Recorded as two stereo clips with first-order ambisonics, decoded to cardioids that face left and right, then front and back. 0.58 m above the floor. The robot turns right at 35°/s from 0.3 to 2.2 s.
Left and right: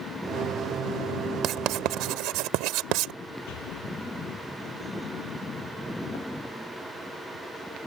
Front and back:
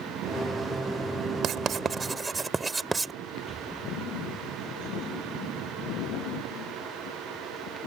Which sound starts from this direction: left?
An explosion, at 3.5 s.